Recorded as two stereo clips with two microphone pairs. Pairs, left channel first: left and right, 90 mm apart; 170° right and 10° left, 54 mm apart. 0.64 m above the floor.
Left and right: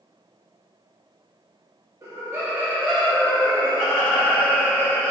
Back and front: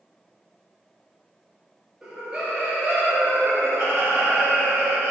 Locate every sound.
2.0 s laughter: 60° right, 0.7 m; by 5.1 s 20° left, 2 m